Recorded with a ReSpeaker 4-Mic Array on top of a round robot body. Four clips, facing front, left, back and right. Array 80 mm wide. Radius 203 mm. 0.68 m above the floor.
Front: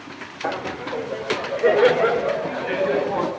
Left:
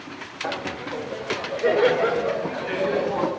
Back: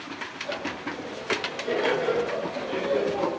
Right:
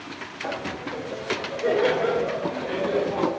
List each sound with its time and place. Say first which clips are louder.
0.4 s laughter: left 1 dB, front 7 dB; 15° left, 2.5 m; by 3.3 s 20° left, 7 m